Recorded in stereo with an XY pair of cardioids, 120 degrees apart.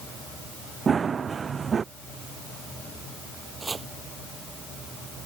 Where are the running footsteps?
30° right.